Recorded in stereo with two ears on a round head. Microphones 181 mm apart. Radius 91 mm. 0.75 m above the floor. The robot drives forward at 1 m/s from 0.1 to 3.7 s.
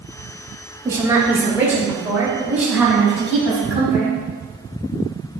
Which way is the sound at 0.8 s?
15° right (ahead or behind).